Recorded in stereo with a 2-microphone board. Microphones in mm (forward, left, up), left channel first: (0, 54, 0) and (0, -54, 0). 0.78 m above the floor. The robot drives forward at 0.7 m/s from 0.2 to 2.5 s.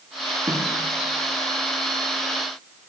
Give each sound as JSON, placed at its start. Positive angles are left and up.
{"t": 0.5, "sound": "a snare drum", "side_deg": -35, "distance_m": 2.5}